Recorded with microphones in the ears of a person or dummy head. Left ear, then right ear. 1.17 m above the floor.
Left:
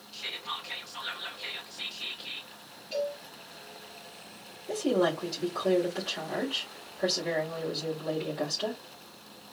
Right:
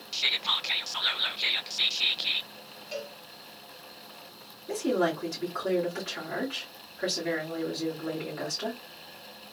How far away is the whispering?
About 0.5 m.